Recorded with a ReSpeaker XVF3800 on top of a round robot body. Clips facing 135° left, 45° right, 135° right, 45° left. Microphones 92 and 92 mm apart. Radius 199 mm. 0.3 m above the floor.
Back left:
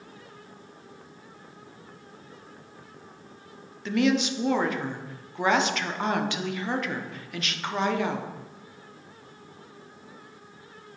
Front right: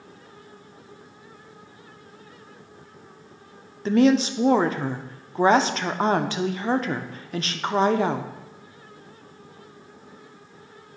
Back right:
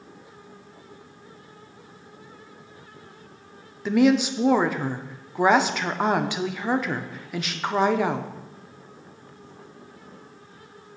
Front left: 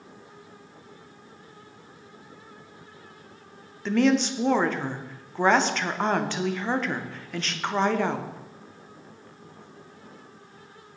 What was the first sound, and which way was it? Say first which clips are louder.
A woman speaking: front right 6 dB, back right 3 dB; 60° right.